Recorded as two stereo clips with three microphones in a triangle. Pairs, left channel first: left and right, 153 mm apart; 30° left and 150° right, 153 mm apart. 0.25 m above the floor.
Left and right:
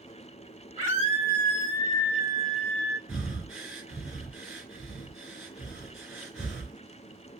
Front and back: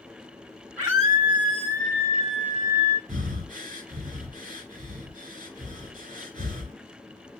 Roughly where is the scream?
Behind right.